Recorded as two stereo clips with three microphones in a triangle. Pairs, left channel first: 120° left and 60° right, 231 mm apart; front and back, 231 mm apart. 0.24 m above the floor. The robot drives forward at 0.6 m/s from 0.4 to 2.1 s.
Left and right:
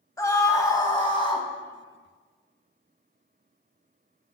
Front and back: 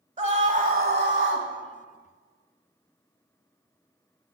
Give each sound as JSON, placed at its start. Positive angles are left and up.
{"t": 0.2, "sound": "a scream", "azimuth_deg": 180, "distance_m": 1.0}